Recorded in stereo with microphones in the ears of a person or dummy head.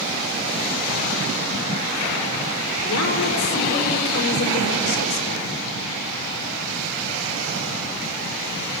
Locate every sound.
2.8 s a woman speaking: 85° left, 5 m